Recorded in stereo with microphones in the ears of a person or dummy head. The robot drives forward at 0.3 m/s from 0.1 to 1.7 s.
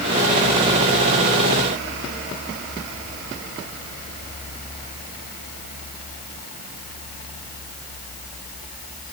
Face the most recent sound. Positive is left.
No sound to turn to.